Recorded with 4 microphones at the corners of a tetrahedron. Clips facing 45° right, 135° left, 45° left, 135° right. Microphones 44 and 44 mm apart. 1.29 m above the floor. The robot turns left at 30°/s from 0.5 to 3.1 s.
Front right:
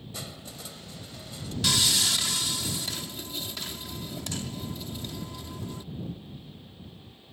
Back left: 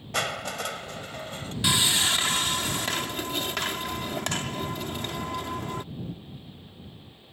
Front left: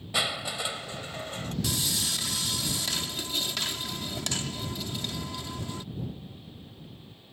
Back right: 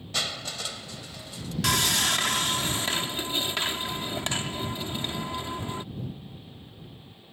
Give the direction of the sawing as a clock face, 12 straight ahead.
5 o'clock.